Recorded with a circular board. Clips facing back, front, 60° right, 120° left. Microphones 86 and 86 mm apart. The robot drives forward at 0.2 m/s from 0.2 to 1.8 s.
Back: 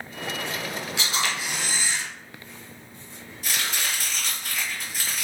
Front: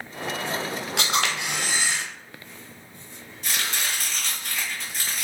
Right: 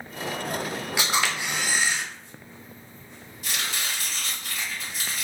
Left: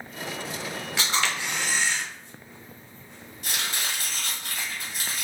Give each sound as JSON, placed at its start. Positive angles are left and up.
{"t": 1.0, "sound": "a camera shutter", "azimuth_deg": 15, "distance_m": 0.8}
{"t": 3.4, "sound": "chopping", "azimuth_deg": 95, "distance_m": 1.8}